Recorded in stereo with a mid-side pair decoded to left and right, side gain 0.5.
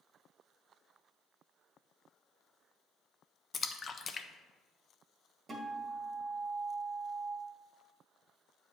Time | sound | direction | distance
3.5 | a splash | 35° left | 0.6 m
5.5 | a guitar | 35° right | 1.6 m